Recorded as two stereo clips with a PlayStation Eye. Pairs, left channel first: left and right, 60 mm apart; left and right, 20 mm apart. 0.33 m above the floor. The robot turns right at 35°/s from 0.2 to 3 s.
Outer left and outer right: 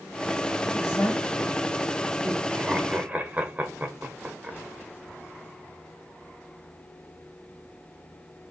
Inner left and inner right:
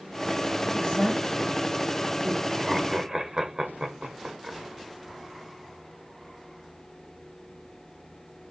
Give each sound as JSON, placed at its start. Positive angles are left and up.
{"t": 0.7, "sound": "a woman speaking", "side_deg": 45, "distance_m": 1.8}
{"t": 2.5, "sound": "laughter", "side_deg": -25, "distance_m": 0.8}